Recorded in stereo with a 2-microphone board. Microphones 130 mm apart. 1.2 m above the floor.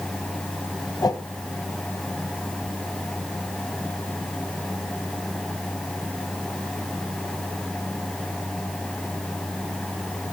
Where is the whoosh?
30° left (ahead or behind), 0.9 m.